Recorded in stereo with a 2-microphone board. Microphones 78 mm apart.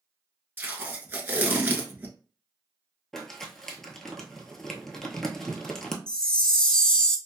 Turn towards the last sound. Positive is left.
turn(degrees=10)  # may be behind; listen again after turning